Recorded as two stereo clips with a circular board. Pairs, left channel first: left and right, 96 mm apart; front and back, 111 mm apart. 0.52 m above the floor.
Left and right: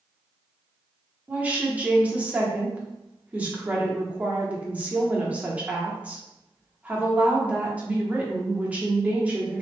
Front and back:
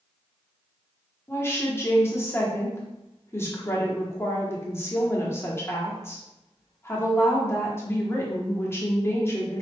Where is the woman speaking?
35° right, 0.9 m.